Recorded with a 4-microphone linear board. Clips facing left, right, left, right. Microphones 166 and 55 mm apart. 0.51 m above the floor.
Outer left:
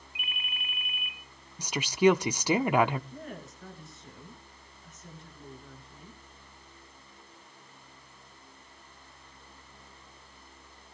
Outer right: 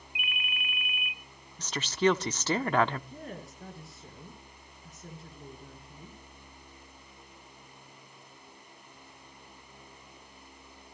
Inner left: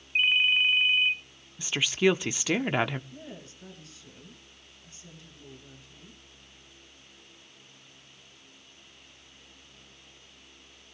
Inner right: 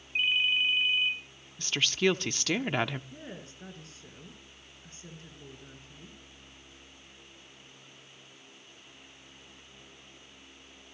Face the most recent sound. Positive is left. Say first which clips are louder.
# even, even
turn(degrees=-35)  # may be behind; listen again after turning